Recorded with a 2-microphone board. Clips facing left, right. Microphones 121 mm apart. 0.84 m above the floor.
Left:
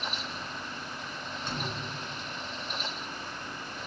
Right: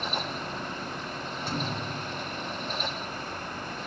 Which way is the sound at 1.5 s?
10° right (ahead or behind).